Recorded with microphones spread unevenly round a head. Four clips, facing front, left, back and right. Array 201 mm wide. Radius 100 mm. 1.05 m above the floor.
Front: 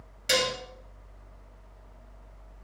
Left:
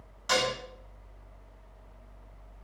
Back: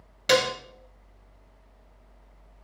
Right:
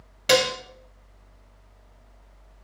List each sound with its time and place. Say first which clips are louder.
0.3 s dishes clattering: right 7 dB, back 6 dB; 125° right, 0.8 m